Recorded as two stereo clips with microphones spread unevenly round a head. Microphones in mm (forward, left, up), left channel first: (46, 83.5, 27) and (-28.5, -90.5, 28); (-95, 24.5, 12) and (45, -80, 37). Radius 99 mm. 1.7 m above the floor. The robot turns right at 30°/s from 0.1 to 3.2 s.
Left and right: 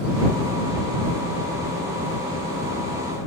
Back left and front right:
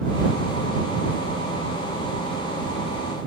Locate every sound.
Only background noise.